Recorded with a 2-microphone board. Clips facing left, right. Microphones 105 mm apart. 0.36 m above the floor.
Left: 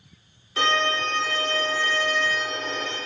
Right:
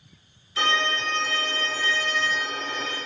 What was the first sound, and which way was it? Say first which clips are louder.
A violin: left 2 dB; 60° left (ahead or behind).